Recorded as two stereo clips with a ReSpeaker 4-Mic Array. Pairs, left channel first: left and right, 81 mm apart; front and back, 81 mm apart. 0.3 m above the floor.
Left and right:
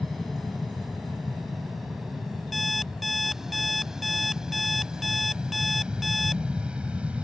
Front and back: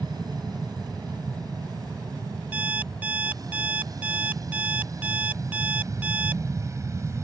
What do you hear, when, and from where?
0.0 s an aircraft: straight behind; by 7.3 s 155° right
2.5 s an alarm clock: straight behind